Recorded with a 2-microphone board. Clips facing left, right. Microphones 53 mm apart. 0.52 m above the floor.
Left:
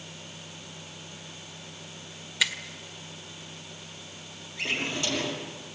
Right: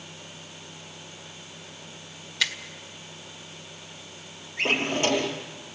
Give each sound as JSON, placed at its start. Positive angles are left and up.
{"t": 2.4, "sound": "a finger snap", "side_deg": 10, "distance_m": 1.6}
{"t": 4.6, "sound": "a drawer", "side_deg": -40, "distance_m": 5.0}